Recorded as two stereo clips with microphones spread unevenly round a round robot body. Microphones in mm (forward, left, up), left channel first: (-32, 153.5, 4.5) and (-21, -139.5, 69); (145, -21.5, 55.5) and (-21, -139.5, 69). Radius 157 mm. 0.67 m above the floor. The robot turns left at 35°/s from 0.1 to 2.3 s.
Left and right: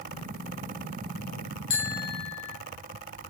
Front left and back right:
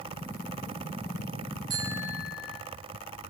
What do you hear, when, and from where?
1.7 s a bicycle bell: 140° left, 2 m; by 2.6 s 115° left, 2 m